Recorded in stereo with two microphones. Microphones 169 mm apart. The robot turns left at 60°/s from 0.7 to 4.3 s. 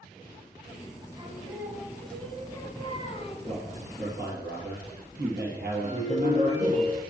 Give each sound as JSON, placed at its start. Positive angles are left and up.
{"t": 1.2, "sound": "singing", "azimuth_deg": -130, "distance_m": 1.9}
{"t": 3.5, "sound": "a man speaking", "azimuth_deg": -35, "distance_m": 4.5}
{"t": 5.8, "sound": "a ringtone", "side_deg": -45, "distance_m": 1.9}